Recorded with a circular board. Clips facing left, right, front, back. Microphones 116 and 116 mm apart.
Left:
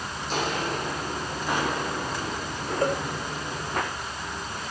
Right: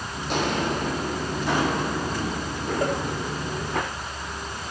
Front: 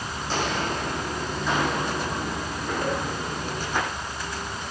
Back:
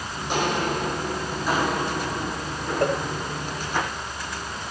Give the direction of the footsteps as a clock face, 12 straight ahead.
4 o'clock.